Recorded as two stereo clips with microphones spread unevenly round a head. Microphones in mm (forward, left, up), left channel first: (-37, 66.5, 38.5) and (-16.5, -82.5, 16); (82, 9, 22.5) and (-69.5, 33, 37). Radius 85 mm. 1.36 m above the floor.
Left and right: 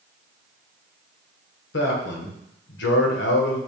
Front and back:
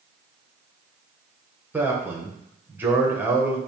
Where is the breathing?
I don't hear breathing.